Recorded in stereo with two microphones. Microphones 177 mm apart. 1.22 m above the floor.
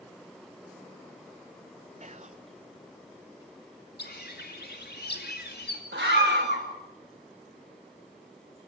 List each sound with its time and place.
2.0 s whispering: 40° right (ahead or behind), 0.7 m
4.0 s a bird: 65° left (ahead or behind), 2.5 m
5.9 s a scream: 80° right, 2.5 m